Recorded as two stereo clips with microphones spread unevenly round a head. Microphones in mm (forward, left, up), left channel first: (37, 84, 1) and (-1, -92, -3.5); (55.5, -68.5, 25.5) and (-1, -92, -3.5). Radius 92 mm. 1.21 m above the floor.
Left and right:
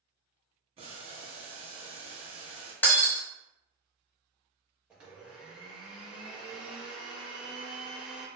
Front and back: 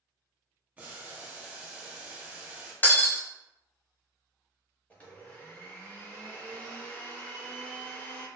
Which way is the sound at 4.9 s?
15° right.